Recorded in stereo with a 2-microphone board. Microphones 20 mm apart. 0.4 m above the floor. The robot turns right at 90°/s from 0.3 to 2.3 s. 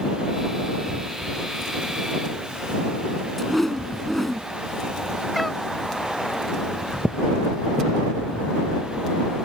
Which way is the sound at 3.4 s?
10° left (ahead or behind).